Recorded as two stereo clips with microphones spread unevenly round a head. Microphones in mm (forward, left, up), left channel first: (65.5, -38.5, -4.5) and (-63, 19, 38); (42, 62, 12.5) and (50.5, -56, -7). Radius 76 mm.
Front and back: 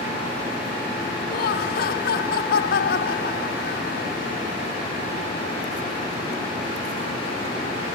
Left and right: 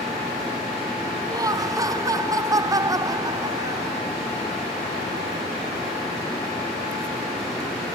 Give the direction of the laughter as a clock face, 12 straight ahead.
1 o'clock.